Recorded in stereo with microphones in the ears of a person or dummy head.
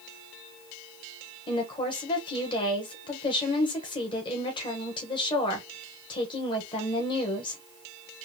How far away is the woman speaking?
About 1.0 m.